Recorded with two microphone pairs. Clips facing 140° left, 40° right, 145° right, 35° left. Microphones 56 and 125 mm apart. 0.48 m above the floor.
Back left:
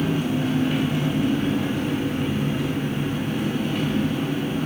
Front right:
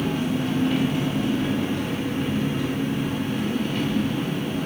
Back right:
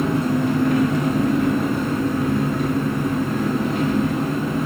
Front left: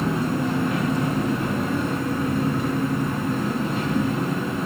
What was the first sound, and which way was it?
An engine running, 140° right.